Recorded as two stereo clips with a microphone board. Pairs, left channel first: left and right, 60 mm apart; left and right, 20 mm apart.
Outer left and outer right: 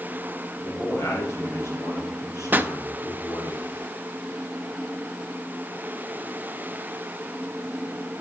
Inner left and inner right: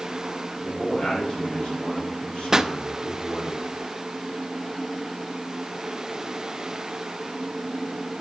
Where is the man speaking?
45° left (ahead or behind), 7 m; by 3.5 s 75° left (ahead or behind), 6.5 m.